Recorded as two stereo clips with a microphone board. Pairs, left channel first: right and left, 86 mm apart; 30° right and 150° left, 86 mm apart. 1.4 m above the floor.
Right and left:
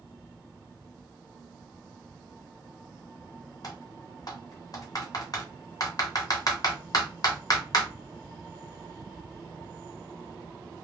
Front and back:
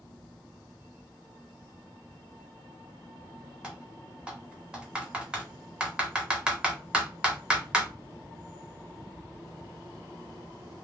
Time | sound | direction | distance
3.6 | typing on a keyboard | 130° right | 0.8 m